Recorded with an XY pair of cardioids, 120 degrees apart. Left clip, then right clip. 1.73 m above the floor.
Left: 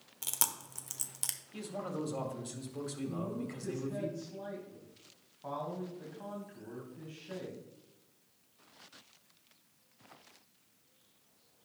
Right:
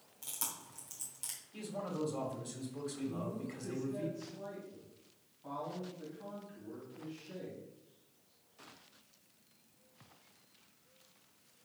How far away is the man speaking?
About 2 m.